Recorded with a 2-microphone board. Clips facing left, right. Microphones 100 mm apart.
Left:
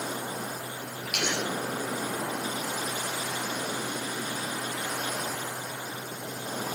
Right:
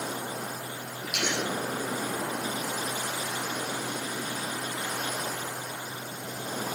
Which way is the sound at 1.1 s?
70° left (ahead or behind).